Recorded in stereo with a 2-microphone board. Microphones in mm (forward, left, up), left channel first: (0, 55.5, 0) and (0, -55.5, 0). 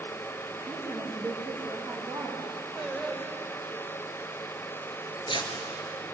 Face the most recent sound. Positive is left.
turn(degrees=45)  # may be behind; listen again after turning